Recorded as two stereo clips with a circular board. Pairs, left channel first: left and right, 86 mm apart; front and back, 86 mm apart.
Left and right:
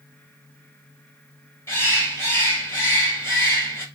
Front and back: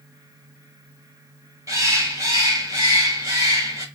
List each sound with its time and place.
1.7 s a bird: 145° left, 1.6 m